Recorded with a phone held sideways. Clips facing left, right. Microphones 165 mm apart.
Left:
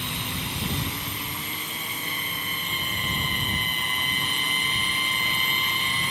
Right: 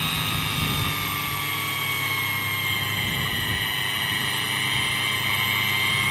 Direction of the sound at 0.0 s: 80° right.